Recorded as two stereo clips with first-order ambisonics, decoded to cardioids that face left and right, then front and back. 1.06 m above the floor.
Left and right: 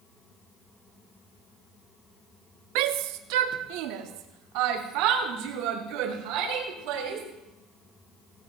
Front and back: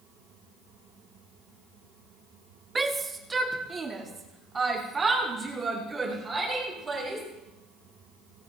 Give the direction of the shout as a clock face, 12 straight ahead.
3 o'clock.